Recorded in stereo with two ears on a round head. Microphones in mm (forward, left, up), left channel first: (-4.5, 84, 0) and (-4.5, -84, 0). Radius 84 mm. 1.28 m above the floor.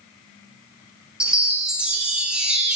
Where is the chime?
5° right (ahead or behind), 0.6 m.